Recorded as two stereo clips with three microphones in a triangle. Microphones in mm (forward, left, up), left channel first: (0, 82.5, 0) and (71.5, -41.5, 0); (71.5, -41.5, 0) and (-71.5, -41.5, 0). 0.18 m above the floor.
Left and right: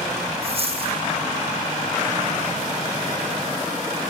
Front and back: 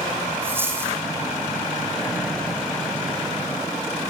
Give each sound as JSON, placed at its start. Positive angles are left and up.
{"t": 0.4, "sound": "a dropped coin", "azimuth_deg": -105, "distance_m": 1.8}